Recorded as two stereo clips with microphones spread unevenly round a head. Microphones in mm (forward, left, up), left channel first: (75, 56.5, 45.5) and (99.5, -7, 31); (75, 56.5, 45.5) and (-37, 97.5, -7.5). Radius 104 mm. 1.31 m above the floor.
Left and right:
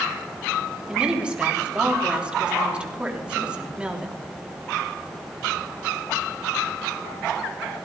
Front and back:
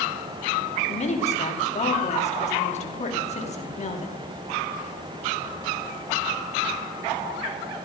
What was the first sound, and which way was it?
A woman speaking, 5° left.